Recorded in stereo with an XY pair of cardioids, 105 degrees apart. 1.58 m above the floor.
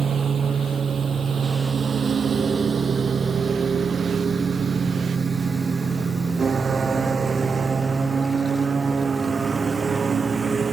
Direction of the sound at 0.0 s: 45° right.